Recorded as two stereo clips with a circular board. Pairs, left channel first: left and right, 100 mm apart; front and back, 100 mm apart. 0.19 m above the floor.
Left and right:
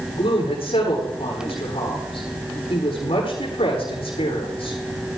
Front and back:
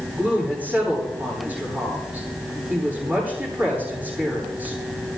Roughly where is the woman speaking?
Left.